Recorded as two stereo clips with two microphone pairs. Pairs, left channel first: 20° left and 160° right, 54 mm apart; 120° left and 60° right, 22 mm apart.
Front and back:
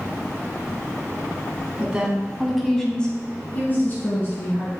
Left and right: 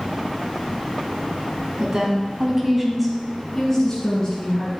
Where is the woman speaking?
100° right, 1.4 m; by 4.7 s 60° left, 2 m.